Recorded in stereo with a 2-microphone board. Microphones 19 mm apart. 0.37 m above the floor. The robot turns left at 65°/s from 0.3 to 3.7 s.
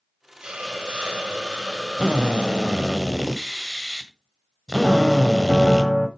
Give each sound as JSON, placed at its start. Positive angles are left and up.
{"t": 0.4, "sound": "a hiss", "azimuth_deg": -45, "distance_m": 2.5}
{"t": 2.0, "sound": "a drill", "azimuth_deg": -85, "distance_m": 1.5}
{"t": 4.8, "sound": "a piano", "side_deg": 10, "distance_m": 1.2}